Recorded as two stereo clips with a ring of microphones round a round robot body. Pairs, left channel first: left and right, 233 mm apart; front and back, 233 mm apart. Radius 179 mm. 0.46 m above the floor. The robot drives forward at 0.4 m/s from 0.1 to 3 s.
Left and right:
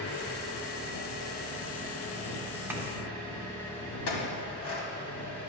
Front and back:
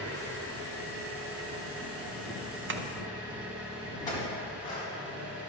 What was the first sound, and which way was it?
An engine running, 135° left.